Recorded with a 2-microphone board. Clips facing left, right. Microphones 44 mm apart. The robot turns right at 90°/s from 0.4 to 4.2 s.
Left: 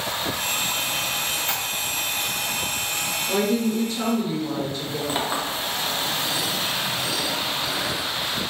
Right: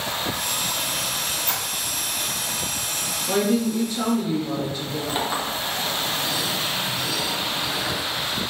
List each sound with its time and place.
1.3 s a squeak: 45° left (ahead or behind), 1.1 m; by 1.6 s 30° left (ahead or behind), 1.1 m
3.3 s a woman speaking: 95° right, 0.9 m; by 5.0 s 10° right, 0.9 m
5.1 s a clink: 5° left (ahead or behind), 0.6 m